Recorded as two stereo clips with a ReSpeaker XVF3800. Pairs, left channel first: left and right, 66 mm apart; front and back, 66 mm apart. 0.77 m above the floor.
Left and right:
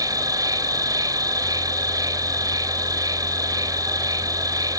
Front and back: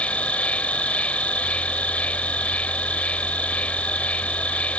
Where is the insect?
70° right.